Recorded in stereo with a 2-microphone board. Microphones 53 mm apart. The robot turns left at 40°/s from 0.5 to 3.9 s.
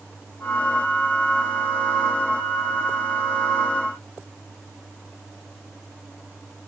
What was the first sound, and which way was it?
Only background noise.